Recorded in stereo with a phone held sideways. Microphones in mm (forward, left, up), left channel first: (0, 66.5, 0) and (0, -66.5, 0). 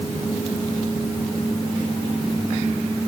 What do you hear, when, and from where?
Only background noise.